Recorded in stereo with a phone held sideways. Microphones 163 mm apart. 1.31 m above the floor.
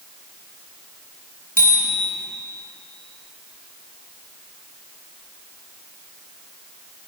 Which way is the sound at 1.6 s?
60° right (ahead or behind).